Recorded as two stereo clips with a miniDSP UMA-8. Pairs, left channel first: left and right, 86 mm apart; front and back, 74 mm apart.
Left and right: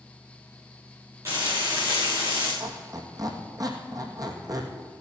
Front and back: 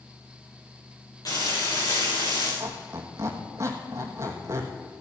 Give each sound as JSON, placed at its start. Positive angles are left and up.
{"t": 1.2, "sound": "frying", "azimuth_deg": -35, "distance_m": 5.5}
{"t": 2.6, "sound": "a squeak", "azimuth_deg": -130, "distance_m": 2.0}